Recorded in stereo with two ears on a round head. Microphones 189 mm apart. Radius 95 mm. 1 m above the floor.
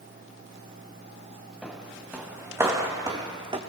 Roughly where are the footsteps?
Centre.